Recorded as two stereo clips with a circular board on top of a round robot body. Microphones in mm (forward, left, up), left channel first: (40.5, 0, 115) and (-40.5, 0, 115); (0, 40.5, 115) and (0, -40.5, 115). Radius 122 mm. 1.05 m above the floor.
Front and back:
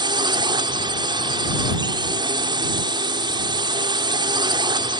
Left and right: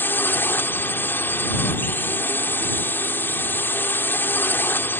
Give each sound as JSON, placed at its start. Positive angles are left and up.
{"t": 0.0, "sound": "a drone", "azimuth_deg": 155}